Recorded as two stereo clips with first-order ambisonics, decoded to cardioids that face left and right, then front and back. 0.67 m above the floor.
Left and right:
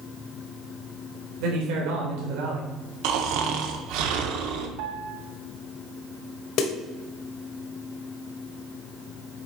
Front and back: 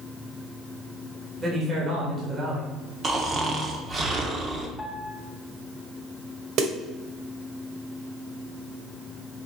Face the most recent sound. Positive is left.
turn(degrees=130)